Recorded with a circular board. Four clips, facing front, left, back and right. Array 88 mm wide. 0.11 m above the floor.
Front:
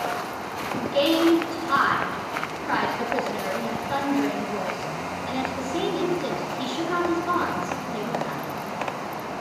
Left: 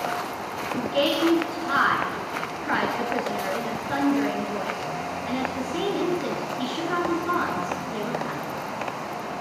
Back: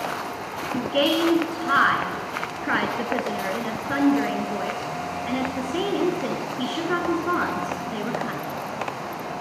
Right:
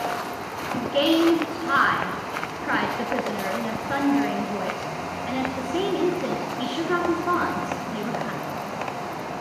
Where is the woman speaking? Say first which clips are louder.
Right 3 dB, even; 160° right, 1.2 m.